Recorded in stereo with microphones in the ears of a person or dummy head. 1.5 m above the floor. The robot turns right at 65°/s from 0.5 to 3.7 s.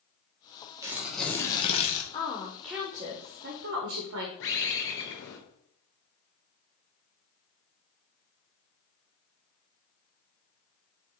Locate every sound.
0.8 s tearing paper: 20° right, 1.3 m; by 2.0 s 60° left, 1.3 m
2.1 s a woman speaking: 140° left, 1.1 m; by 4.3 s 115° right, 1.1 m
4.4 s a bird: 55° left (ahead or behind), 1.5 m